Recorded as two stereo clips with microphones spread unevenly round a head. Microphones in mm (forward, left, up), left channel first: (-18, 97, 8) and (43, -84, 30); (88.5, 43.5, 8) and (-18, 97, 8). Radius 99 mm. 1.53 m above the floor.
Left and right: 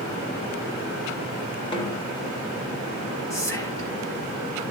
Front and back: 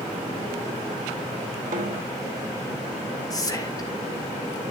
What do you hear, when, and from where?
1.7 s a snare drum: 175° left, 2.5 m
3.3 s whispering: 35° left, 4 m